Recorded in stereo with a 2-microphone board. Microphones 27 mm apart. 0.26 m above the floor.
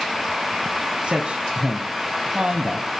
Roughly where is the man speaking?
Right.